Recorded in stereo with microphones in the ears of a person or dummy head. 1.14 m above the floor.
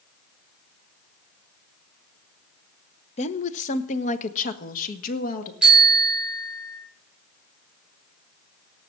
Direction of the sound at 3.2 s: 35° left (ahead or behind).